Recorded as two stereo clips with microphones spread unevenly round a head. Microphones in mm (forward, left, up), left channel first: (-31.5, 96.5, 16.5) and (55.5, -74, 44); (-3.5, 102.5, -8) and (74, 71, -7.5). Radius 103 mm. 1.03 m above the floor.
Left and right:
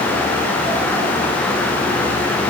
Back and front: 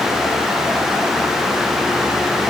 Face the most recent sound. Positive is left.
No sound to turn to.